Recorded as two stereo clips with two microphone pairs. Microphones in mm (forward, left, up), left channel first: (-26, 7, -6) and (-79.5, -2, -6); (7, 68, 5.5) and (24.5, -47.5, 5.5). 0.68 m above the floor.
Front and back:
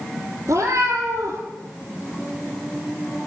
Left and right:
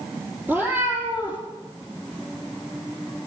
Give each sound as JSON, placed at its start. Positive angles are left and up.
{"t": 0.5, "sound": "a cat meowing", "azimuth_deg": -155, "distance_m": 3.0}